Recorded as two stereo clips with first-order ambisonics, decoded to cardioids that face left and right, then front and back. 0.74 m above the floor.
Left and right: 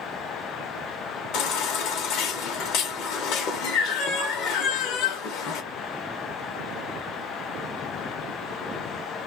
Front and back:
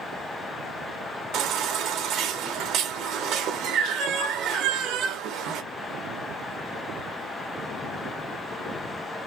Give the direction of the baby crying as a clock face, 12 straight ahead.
8 o'clock.